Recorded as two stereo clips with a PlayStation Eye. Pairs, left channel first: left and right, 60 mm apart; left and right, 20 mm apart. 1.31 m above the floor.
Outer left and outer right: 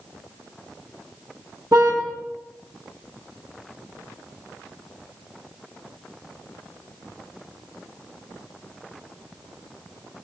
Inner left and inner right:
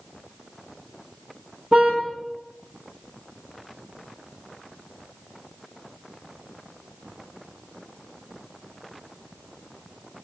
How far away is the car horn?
About 7.5 m.